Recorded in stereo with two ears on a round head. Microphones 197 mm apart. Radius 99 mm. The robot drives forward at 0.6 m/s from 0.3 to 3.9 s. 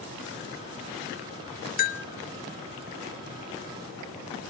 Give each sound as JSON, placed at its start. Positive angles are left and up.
{"t": 1.8, "sound": "a bell", "side_deg": 40, "distance_m": 0.5}